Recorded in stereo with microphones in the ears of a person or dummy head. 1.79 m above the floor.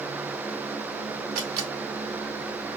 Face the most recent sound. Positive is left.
turn(degrees=-55)  # may be behind; listen again after turning